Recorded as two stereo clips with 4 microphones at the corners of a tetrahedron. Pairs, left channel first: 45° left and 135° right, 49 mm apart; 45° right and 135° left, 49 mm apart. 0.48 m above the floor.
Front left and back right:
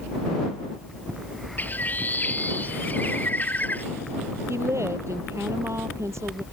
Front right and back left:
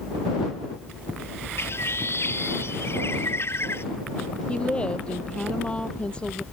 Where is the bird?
10° right.